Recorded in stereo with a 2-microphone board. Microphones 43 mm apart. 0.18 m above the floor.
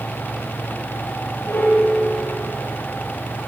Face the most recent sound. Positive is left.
turn(degrees=75)  # may be behind; listen again after turning